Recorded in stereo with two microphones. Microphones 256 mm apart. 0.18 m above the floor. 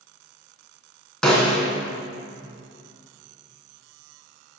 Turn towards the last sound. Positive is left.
turn(degrees=5)  # may be behind; listen again after turning